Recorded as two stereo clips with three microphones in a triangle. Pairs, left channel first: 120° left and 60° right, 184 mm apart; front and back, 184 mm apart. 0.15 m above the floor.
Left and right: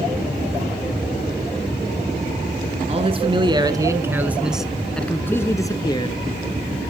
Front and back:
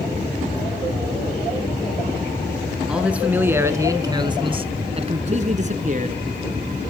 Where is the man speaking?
95° right, 2 m; by 6.2 s 170° left, 2.5 m.